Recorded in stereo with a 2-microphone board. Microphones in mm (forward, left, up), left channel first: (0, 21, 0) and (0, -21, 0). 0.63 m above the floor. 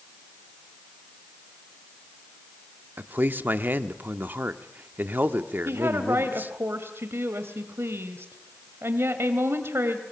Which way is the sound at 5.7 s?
75° right (ahead or behind).